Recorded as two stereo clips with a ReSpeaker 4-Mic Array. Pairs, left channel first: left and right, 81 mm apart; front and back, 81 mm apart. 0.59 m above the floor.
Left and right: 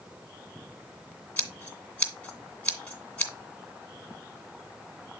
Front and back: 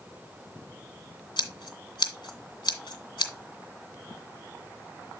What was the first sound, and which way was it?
Scissors, 15° left.